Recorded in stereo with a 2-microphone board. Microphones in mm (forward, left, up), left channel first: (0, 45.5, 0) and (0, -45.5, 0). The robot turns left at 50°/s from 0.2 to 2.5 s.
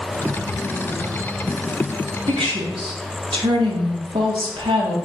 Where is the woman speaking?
65° right (ahead or behind), 1.5 m.